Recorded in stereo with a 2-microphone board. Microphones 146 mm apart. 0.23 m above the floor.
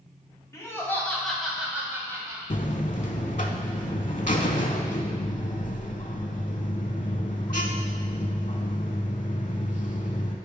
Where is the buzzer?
60° left (ahead or behind), 0.7 m.